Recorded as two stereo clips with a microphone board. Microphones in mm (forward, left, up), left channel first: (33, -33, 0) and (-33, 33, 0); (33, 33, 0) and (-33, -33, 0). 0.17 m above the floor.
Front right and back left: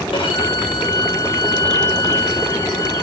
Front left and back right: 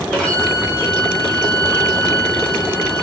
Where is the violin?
35° right, 9 m.